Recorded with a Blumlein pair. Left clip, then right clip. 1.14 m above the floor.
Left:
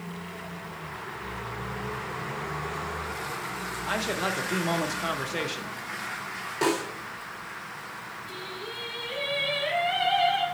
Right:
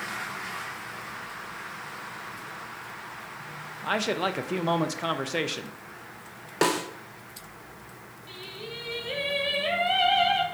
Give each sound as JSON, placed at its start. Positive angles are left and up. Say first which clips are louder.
{"t": 3.8, "sound": "a man speaking", "louder": "right 2 dB", "azimuth_deg": -10, "distance_m": 0.6}
{"t": 6.6, "sound": "a snare drum", "louder": "right 2 dB", "azimuth_deg": -25, "distance_m": 1.1}
{"t": 8.3, "sound": "singing", "louder": "right 1 dB", "azimuth_deg": -40, "distance_m": 2.5}